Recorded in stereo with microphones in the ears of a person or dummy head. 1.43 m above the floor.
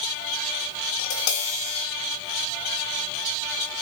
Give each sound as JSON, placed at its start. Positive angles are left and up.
{"t": 1.0, "sound": "tapping", "side_deg": 70, "distance_m": 3.5}